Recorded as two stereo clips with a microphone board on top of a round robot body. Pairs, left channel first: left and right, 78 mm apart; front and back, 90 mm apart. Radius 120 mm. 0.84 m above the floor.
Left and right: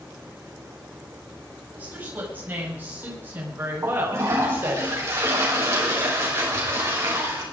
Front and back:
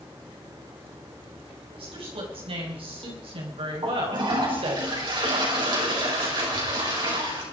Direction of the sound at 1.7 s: 160° right.